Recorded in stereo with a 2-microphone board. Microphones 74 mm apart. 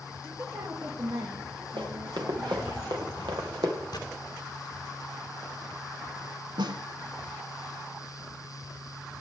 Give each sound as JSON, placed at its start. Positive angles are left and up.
{"t": 0.2, "sound": "a woman speaking", "side_deg": -65, "distance_m": 5.0}
{"t": 1.8, "sound": "running footsteps", "side_deg": -85, "distance_m": 4.5}
{"t": 3.9, "sound": "a gunshot", "side_deg": 60, "distance_m": 2.0}
{"t": 6.6, "sound": "a snare drum", "side_deg": -80, "distance_m": 0.8}